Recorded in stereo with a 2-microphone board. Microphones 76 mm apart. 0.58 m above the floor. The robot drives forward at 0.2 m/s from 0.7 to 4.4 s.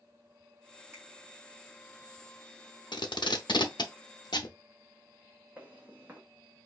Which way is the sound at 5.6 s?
25° right (ahead or behind).